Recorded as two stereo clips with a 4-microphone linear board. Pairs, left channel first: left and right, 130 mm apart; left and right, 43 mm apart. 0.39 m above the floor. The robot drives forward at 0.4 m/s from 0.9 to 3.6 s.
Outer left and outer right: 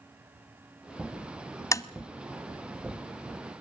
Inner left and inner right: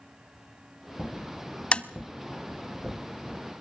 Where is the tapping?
25° left (ahead or behind), 0.7 m.